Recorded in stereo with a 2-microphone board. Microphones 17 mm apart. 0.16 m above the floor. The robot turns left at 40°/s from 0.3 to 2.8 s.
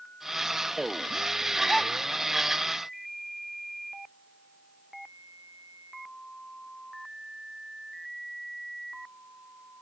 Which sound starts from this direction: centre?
A gasp, at 1.7 s.